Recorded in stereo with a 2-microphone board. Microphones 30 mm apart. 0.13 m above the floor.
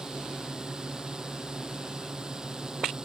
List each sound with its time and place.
0.0 s a drone: 25° right (ahead or behind)